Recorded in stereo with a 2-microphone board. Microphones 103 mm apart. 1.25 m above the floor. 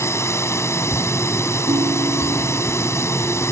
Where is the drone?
25° left (ahead or behind).